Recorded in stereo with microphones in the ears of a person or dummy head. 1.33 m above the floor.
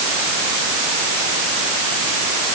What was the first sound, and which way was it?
Only background noise.